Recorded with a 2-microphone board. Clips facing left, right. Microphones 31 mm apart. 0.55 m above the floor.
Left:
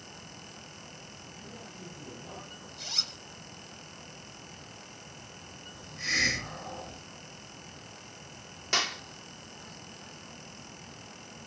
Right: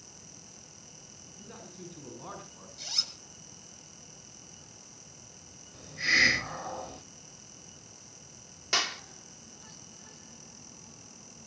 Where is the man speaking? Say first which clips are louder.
Right 1 dB; 65° right (ahead or behind), 6.5 m.